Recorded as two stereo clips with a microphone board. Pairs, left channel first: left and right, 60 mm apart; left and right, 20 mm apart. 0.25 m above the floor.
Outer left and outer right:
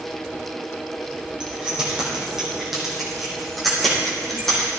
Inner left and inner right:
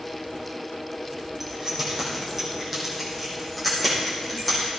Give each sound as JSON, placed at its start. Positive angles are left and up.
{"t": 1.4, "sound": "keys jangling", "side_deg": -15, "distance_m": 6.0}